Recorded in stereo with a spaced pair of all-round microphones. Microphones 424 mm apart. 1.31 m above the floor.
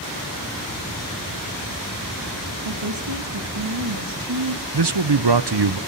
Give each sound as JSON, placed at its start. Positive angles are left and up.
{"t": 2.6, "sound": "a woman speaking", "side_deg": -80, "distance_m": 3.0}
{"t": 4.7, "sound": "a man speaking", "side_deg": -70, "distance_m": 0.8}